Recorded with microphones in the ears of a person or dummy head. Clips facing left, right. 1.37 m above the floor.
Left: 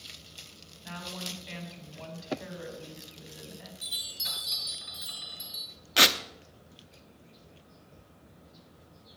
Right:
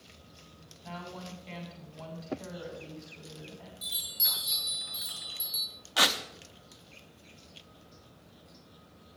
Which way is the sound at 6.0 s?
25° left (ahead or behind).